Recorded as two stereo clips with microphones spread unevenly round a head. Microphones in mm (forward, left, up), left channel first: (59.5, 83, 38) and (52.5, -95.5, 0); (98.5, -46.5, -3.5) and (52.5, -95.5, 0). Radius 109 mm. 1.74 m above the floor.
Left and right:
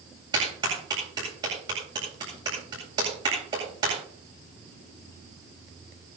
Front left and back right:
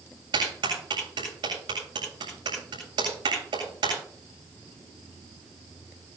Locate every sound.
0.3 s a clap: 165° right, 8 m